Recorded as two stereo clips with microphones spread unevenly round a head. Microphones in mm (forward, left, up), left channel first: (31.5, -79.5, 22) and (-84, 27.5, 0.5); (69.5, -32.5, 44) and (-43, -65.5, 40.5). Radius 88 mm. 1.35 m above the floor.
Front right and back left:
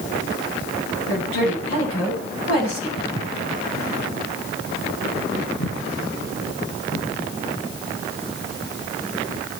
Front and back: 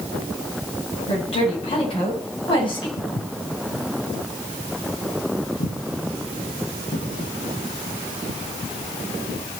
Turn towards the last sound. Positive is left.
turn(degrees=-25)